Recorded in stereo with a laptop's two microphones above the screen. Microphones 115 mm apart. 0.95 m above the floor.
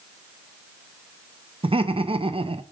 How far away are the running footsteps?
No running footsteps in this recording.